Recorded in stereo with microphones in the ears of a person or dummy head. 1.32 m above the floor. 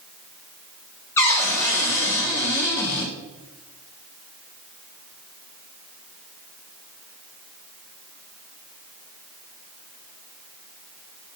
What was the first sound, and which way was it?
A cupboard door, 10° left (ahead or behind).